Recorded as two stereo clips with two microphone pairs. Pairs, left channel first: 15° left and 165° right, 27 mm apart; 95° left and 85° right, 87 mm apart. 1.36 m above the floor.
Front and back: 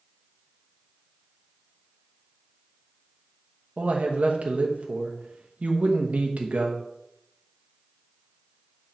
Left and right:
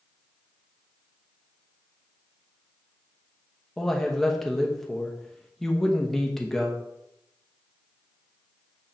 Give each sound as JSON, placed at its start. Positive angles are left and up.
{"t": 3.8, "sound": "a man speaking", "azimuth_deg": 180, "distance_m": 1.1}